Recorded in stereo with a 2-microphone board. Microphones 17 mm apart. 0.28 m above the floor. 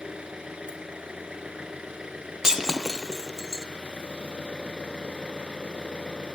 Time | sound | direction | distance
0.0 | an engine running | 60° right (ahead or behind) | 3 m
2.4 | breaking glass | 20° right (ahead or behind) | 1.7 m